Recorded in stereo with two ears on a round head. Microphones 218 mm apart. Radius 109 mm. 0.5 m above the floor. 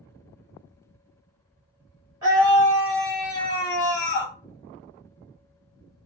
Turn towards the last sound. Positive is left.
turn(degrees=45)  # may be behind; listen again after turning